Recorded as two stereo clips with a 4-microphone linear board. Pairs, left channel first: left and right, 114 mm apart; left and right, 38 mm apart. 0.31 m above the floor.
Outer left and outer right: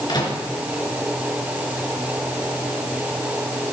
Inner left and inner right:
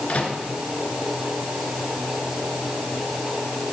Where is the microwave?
40° left (ahead or behind), 3 m.